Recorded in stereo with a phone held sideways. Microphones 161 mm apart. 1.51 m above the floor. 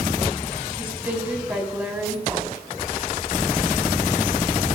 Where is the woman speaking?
10° right (ahead or behind), 3.5 m.